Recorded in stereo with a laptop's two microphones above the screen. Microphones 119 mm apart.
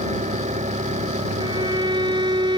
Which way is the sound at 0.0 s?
85° right.